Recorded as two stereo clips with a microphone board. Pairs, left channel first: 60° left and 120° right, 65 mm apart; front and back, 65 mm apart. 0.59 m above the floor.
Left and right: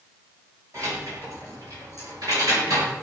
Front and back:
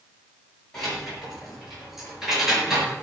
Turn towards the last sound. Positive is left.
turn(degrees=-100)